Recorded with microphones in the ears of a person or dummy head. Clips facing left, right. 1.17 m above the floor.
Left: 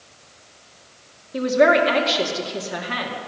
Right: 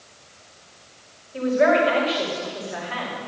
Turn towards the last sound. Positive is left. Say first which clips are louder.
# left 2 dB
turn(degrees=50)  # may be behind; listen again after turning